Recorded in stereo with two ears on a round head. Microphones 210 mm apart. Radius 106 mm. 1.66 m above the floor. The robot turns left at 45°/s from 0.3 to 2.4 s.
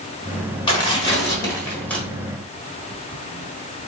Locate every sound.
0.7 s tearing paper: 20° left (ahead or behind), 1.5 m; by 2.0 s 5° left (ahead or behind), 1.5 m